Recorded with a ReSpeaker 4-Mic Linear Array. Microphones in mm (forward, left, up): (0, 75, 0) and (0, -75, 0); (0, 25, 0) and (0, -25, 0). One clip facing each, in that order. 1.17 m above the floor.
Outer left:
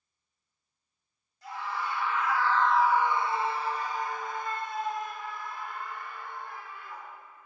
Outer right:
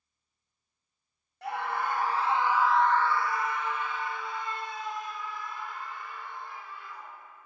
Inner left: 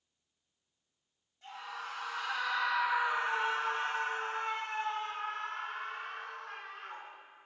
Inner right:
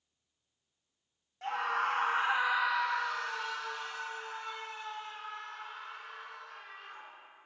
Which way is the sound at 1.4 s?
65° right (ahead or behind).